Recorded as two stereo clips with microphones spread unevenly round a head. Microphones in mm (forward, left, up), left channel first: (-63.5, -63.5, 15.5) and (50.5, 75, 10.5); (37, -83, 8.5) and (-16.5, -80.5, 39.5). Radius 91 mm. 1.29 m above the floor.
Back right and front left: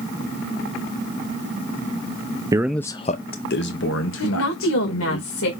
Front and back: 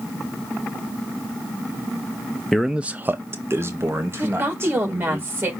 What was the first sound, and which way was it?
A man speaking, straight ahead.